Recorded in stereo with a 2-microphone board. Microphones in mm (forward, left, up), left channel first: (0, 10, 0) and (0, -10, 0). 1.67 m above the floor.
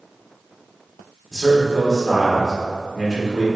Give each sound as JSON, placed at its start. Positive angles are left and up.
{"t": 1.3, "sound": "a man speaking", "side_deg": 25, "distance_m": 1.2}